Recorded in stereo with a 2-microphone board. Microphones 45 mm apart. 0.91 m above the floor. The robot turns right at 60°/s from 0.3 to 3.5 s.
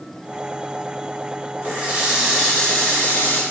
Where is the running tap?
45° right, 5 m; by 3.4 s 65° left, 5 m.